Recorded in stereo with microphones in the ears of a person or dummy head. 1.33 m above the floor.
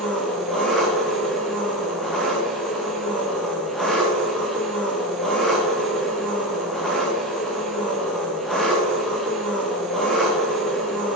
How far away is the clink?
I don't hear a clink.